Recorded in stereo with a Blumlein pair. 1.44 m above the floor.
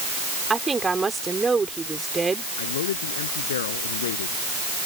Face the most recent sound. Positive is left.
turn(degrees=60)